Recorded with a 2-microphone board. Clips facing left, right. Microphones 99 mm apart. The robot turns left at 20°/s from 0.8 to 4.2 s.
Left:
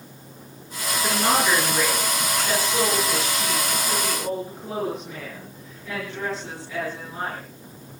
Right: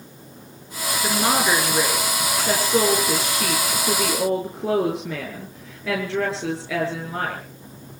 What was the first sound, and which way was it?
A woman speaking, 15° right.